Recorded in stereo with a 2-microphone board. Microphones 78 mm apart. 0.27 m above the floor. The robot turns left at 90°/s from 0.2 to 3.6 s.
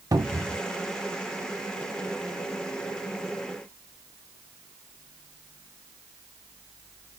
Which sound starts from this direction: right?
A cupboard door, at 0.1 s.